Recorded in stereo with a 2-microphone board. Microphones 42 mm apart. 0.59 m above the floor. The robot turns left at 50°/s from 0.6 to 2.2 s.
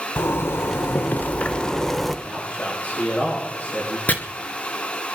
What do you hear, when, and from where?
0.2 s a zipper: 75° left, 0.9 m; by 2.1 s 5° right, 0.9 m
2.2 s a man speaking: 35° left (ahead or behind), 8.5 m
4.1 s chopping: 40° left (ahead or behind), 1.8 m